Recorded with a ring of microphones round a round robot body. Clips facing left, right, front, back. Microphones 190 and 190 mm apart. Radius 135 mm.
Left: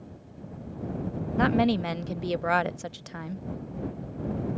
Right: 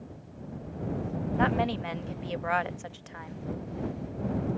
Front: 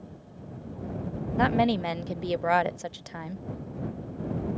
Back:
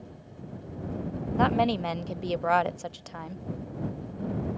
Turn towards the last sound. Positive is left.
turn(degrees=75)